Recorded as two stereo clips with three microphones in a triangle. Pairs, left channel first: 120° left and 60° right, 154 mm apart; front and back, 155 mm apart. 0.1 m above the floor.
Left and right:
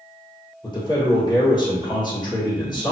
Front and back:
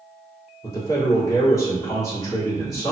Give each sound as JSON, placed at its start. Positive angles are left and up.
{"t": 0.6, "sound": "a man speaking", "azimuth_deg": 65, "distance_m": 1.9}